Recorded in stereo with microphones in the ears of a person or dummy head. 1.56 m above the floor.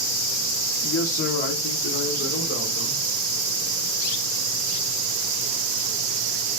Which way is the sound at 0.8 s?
75° left (ahead or behind).